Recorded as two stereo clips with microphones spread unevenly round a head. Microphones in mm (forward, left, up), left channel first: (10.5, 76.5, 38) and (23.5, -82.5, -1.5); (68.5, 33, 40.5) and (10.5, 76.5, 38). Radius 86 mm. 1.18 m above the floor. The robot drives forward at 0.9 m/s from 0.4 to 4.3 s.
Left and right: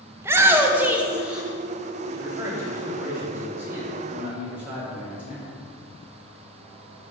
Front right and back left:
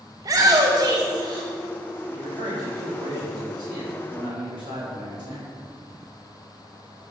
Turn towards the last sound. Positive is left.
turn(degrees=-170)